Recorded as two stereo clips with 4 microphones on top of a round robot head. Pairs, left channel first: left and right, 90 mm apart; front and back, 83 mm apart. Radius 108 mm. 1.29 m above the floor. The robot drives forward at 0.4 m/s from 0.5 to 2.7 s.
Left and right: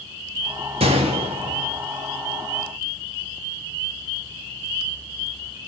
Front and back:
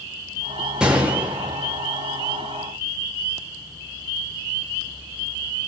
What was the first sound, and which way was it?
A gunshot, 95° right.